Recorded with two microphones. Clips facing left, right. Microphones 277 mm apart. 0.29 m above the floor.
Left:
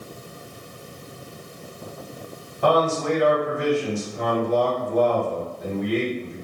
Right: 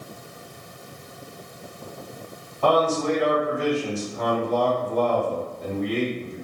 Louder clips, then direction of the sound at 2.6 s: Even; 15° left (ahead or behind).